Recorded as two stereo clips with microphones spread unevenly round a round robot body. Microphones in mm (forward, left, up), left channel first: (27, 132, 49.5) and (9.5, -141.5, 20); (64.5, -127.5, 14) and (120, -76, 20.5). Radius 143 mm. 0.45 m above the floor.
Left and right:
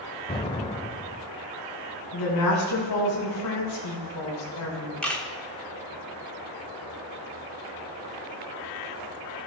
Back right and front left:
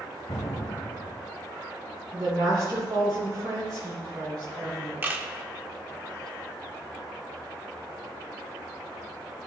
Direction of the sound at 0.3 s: 160° left.